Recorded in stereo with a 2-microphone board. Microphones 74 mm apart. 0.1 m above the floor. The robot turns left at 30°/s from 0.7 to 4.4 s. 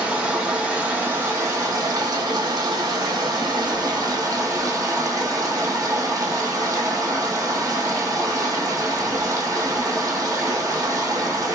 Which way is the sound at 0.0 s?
20° right.